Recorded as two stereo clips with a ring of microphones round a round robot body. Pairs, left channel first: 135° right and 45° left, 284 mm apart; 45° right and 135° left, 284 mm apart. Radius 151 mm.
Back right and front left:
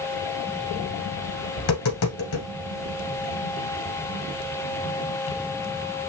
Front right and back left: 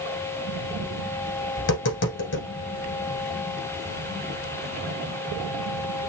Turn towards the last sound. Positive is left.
turn(degrees=-95)